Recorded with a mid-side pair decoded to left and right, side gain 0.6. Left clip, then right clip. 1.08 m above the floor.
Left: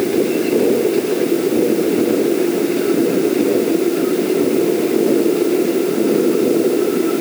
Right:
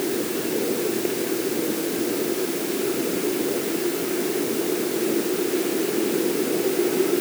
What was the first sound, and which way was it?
Only background noise.